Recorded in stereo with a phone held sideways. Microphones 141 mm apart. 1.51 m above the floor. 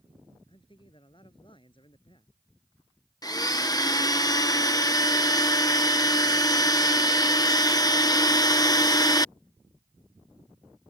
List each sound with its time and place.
0.5 s a man speaking: 35° left (ahead or behind)
3.2 s a blender: 25° left (ahead or behind)